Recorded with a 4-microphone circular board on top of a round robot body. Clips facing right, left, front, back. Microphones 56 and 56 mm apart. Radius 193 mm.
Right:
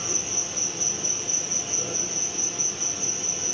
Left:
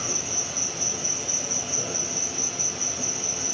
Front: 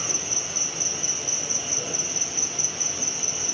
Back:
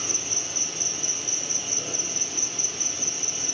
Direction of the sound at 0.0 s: 60° left.